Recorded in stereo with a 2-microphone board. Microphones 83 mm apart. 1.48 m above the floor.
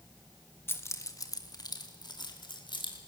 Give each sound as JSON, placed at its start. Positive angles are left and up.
{"t": 0.7, "sound": "keys jangling", "side_deg": 30, "distance_m": 1.7}